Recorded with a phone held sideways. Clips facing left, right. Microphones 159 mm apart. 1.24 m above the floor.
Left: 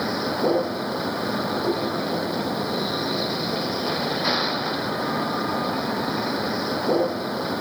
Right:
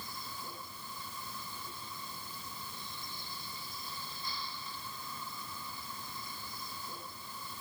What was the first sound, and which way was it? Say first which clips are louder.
A vehicle: left 25 dB; 75° left (ahead or behind).